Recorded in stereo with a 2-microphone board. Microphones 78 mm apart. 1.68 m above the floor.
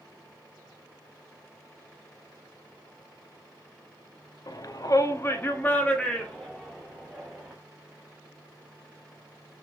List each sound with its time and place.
4.5 s a shout: 50° left (ahead or behind), 0.6 m; by 7.5 s 5° right (ahead or behind), 1.5 m